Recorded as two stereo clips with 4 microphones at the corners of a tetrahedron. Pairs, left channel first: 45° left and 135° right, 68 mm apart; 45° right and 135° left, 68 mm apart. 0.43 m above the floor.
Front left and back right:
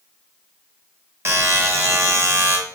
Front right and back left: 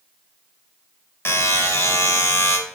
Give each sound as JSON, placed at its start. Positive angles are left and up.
{"t": 1.2, "sound": "a buzzer", "azimuth_deg": -90, "distance_m": 0.6}